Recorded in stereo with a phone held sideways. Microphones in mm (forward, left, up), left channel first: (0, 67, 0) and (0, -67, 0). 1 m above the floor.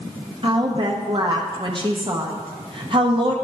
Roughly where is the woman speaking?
Right.